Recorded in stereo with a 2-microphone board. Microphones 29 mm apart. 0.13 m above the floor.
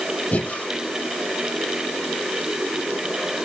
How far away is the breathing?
About 3.5 m.